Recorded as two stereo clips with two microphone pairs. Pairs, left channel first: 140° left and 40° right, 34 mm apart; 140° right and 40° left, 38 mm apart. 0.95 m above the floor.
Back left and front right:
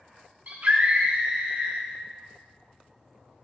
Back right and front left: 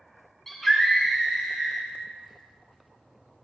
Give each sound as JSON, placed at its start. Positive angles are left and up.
{"t": 0.5, "sound": "a scream", "azimuth_deg": -65, "distance_m": 1.6}